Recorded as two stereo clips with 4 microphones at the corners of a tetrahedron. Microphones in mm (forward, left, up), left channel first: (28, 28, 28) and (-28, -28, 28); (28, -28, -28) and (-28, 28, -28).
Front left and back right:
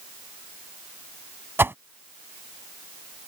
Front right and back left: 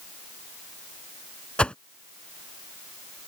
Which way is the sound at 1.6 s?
110° right.